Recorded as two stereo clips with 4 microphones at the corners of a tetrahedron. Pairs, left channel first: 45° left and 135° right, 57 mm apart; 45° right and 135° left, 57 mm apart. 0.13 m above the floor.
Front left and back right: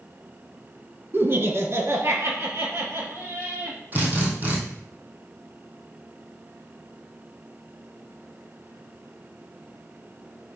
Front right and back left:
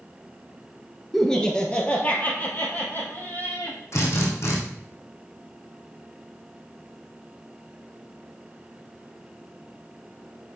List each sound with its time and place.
1.1 s laughter: 125° right, 1.4 m; by 3.8 s 95° right, 4 m
3.9 s a drill: 80° right, 2.5 m